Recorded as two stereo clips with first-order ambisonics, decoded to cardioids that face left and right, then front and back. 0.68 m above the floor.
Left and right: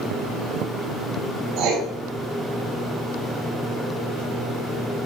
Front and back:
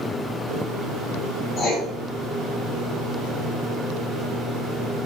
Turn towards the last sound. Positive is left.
turn(degrees=-65)